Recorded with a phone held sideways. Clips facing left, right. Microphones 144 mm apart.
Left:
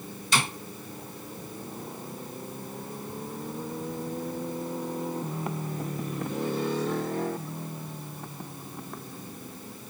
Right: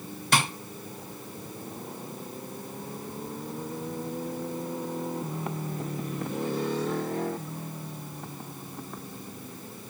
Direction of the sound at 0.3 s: 60° right (ahead or behind).